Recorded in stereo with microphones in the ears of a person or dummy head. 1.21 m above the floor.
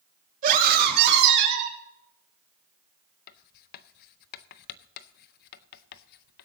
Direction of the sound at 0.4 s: 50° right (ahead or behind).